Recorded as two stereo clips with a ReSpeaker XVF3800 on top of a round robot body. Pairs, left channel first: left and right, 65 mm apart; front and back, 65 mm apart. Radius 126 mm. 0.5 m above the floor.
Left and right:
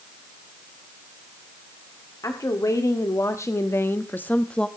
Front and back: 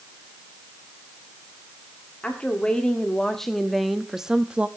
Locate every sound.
2.2 s a woman speaking: 70° left, 1.8 m; by 4.7 s 145° left, 1.0 m